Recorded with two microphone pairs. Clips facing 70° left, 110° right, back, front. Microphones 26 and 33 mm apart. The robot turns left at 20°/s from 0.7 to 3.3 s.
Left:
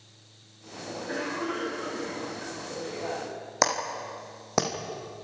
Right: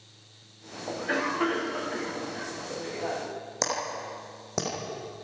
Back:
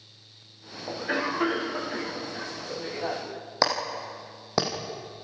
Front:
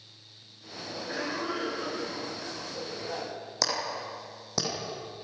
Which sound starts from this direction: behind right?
A cough, at 0.9 s.